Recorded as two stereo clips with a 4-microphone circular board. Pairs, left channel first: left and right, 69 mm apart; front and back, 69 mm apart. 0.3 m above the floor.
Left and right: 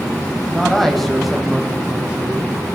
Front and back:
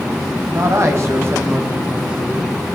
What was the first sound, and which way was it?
A man speaking, 165° left.